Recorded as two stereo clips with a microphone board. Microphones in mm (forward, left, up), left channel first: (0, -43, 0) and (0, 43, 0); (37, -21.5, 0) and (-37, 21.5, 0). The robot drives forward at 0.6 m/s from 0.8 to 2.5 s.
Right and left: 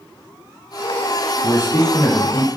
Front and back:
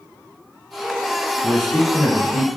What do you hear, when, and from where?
1.4 s a man speaking: 100° right, 1.8 m; by 2.6 s 125° right, 2.0 m